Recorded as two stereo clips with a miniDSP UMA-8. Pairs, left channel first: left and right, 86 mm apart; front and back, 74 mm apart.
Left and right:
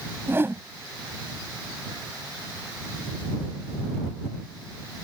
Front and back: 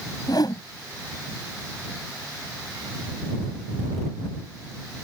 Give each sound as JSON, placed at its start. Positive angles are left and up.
{"t": 0.3, "sound": "a whoosh", "azimuth_deg": -25}